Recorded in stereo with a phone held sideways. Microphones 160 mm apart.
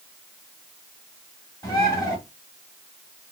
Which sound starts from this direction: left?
A bird, at 1.6 s.